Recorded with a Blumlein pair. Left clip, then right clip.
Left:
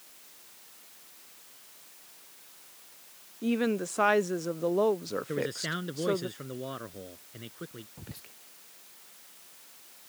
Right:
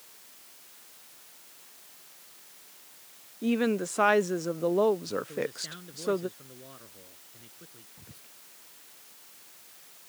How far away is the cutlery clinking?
No cutlery clinking in this recording.